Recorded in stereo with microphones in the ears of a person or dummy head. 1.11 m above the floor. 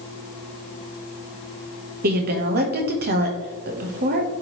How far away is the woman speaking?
About 1.1 m.